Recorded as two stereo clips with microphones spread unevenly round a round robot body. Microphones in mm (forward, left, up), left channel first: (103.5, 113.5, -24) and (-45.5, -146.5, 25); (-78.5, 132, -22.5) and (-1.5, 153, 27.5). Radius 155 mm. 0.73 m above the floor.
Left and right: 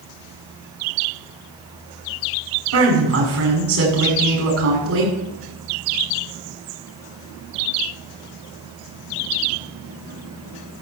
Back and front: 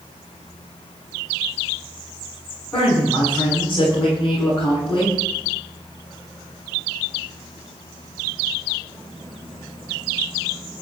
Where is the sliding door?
No sliding door in this recording.